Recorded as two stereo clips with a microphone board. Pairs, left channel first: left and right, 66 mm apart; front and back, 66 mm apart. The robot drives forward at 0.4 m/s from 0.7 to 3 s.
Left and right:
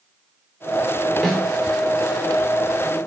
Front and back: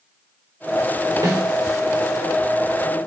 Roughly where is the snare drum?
Behind.